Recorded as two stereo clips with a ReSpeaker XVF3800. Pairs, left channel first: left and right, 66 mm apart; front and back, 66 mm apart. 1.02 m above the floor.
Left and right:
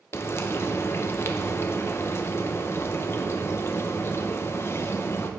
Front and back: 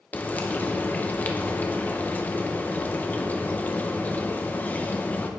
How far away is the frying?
About 0.6 m.